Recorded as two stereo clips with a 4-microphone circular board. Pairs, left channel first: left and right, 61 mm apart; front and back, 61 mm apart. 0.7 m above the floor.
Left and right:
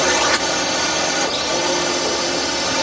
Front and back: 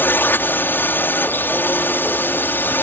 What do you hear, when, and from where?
0.0 s a drone: straight ahead